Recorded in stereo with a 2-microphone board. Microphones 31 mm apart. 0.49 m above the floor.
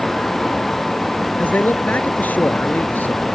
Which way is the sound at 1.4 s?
80° left.